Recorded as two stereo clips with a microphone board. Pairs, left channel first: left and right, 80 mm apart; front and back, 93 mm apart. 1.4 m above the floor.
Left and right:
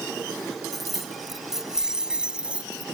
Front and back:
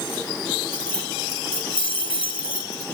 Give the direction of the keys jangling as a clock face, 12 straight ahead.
12 o'clock.